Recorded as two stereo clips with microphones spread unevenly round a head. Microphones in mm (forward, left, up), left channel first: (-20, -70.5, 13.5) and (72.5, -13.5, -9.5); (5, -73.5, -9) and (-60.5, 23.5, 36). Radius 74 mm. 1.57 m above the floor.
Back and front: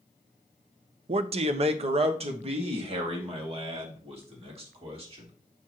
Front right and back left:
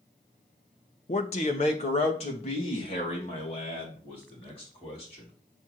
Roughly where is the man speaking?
Ahead.